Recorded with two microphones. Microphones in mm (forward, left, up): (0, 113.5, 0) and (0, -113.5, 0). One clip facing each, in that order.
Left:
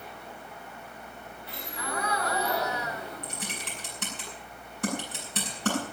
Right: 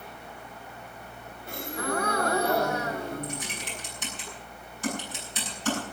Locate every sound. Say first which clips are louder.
1.5 s a gasp: right 7 dB; 50° right (ahead or behind), 1.6 m
3.2 s typing on a keyboard: right 3 dB; 60° left (ahead or behind), 9 m